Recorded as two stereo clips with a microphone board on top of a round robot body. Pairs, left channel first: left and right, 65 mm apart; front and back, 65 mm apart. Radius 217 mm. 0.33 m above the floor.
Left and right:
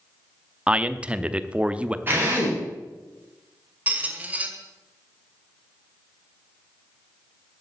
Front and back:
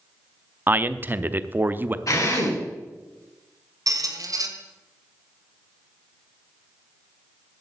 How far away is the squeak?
About 1.9 m.